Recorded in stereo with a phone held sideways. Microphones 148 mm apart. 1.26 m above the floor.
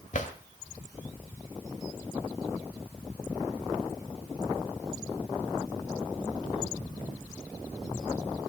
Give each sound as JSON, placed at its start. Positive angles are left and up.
{"t": 0.1, "sound": "a drawer", "side_deg": 60, "distance_m": 2.0}